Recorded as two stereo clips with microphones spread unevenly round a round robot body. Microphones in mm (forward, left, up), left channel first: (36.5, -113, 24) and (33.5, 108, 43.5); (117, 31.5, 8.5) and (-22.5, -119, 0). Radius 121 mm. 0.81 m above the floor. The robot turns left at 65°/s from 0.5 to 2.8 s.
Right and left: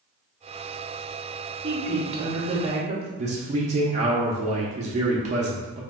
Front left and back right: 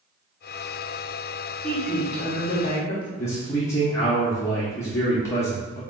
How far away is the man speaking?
About 0.6 m.